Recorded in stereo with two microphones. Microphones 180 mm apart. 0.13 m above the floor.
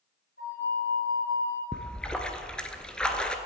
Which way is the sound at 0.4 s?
70° left (ahead or behind).